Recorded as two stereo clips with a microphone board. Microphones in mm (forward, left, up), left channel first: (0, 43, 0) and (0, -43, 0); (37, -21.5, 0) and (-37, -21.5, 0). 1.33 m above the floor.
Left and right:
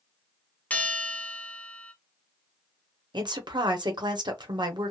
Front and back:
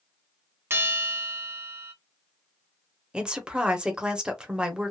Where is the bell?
150° left, 0.5 m.